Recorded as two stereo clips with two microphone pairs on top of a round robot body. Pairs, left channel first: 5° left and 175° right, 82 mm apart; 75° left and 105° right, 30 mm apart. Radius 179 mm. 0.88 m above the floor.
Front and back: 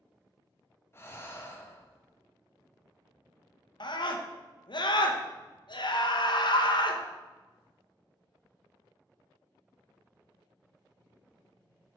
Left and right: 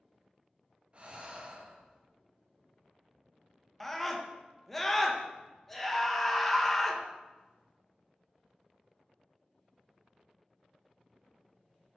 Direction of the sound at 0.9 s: 55° right.